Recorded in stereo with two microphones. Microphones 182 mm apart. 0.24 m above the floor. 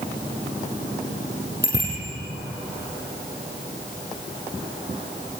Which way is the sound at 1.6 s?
75° right (ahead or behind).